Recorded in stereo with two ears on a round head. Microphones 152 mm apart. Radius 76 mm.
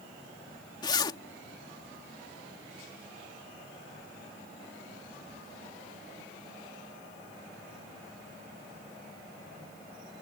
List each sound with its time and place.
0.8 s a zipper: 25° left (ahead or behind)